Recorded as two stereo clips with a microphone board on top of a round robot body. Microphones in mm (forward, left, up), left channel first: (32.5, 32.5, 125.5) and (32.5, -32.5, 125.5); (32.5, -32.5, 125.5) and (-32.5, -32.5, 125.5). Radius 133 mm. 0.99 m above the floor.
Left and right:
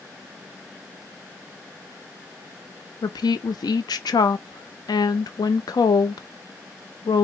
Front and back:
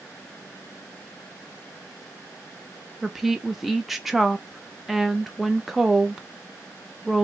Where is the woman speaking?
95° left, 0.5 m.